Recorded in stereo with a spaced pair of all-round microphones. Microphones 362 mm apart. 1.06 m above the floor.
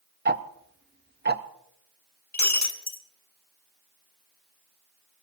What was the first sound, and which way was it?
Ticking, 30° right (ahead or behind).